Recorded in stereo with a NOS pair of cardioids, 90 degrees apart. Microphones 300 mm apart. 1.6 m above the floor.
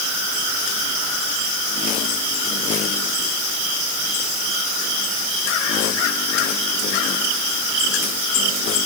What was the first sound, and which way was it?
Only background noise.